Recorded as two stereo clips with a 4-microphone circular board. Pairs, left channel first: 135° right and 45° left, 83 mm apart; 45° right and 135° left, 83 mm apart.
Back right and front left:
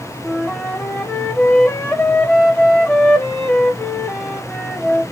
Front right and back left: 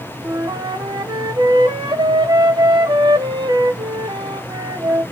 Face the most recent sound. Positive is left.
turn(degrees=160)